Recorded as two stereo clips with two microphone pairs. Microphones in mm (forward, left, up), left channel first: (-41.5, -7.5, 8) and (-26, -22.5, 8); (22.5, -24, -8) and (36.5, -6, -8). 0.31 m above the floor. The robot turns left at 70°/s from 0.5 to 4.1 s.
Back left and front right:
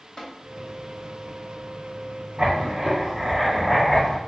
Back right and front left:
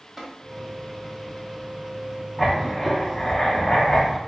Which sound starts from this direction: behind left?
Tapping, at 0.2 s.